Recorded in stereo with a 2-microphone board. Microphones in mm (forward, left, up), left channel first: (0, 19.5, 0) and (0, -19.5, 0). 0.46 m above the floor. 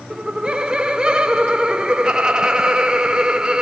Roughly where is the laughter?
Centre.